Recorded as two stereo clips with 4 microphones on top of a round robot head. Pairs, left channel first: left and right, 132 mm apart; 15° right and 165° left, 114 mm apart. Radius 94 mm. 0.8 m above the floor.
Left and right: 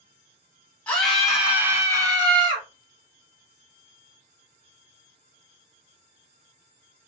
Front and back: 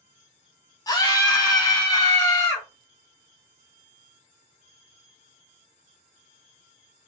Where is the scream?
15° left, 1.1 m; by 2.7 s 60° right, 1.3 m.